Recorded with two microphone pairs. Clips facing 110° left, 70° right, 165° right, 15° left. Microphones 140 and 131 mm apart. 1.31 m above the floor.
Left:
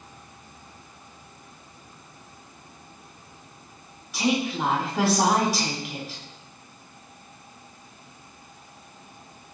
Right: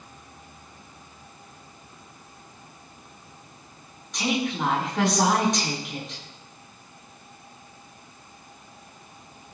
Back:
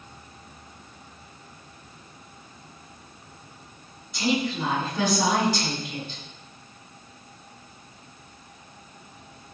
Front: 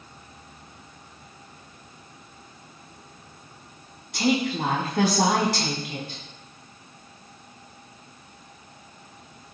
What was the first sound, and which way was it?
A woman speaking, 25° left.